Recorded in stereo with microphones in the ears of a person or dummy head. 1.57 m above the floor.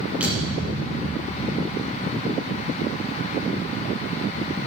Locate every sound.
0.2 s a thud: centre (ahead or behind), 6.5 m